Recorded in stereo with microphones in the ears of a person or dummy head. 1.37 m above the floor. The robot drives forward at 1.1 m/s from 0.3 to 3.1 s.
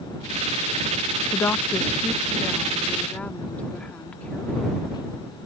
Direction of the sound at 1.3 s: 10° left (ahead or behind).